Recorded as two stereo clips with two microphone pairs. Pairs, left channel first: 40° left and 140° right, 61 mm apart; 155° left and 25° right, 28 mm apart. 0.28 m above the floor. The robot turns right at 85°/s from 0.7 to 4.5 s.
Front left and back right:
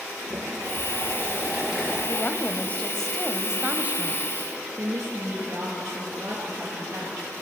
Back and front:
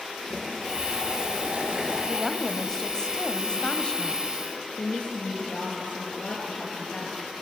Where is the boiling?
150° right, 5.5 m; by 2.0 s 40° right, 5.5 m.